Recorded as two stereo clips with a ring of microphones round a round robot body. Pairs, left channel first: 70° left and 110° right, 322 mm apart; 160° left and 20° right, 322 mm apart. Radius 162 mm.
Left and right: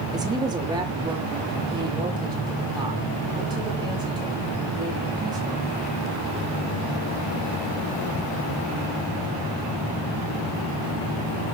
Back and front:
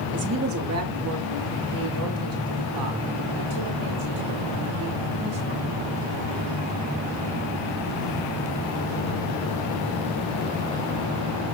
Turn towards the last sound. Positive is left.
turn(degrees=-35)